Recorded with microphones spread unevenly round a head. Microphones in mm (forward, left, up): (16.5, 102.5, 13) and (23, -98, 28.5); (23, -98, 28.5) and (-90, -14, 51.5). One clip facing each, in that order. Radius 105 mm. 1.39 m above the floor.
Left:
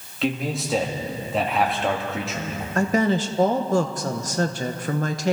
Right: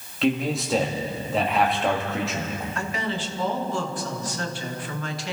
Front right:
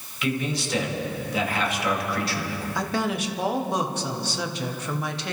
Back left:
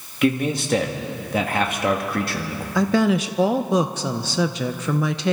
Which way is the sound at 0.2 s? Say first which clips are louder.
Right 2 dB, back left 7 dB; 175° right.